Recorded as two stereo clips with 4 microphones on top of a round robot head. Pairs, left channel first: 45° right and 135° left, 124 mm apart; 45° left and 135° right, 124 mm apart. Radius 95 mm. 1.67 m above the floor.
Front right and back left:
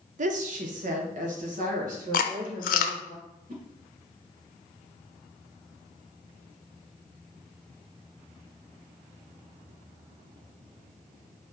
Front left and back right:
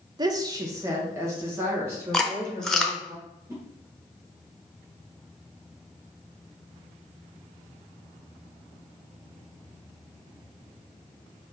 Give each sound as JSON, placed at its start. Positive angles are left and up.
{"t": 0.2, "sound": "a woman speaking", "azimuth_deg": 165, "distance_m": 0.5}
{"t": 2.1, "sound": "chewing", "azimuth_deg": -40, "distance_m": 0.6}
{"t": 3.5, "sound": "a whoosh", "azimuth_deg": 155, "distance_m": 1.2}